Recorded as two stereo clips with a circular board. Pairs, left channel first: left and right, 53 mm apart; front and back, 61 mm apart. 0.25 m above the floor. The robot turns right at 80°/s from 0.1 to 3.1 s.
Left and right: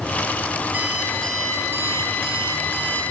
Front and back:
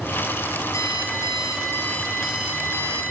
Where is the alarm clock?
30° right, 2 m; by 3.0 s 150° left, 2 m.